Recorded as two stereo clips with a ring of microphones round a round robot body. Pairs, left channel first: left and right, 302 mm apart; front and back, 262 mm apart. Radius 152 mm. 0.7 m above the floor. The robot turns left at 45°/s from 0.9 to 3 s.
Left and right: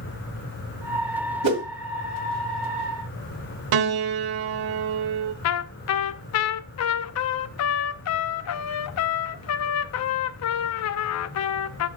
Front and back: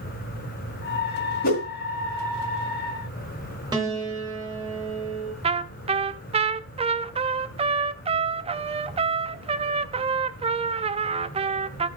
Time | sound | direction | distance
1.4 | a whoosh | 65° right | 2 m
3.7 | a piano | 100° right | 0.9 m
5.4 | a trumpet | 115° left | 0.6 m